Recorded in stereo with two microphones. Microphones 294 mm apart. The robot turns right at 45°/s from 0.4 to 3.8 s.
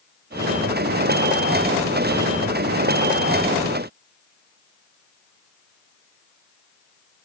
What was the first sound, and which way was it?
Only background noise.